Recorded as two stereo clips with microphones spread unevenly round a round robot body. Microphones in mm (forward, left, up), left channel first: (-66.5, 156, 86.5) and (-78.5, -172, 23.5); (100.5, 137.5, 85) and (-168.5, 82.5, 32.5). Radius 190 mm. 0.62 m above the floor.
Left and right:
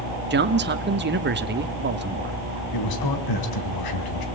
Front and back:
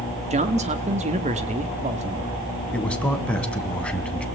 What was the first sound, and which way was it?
A man speaking, 120° right.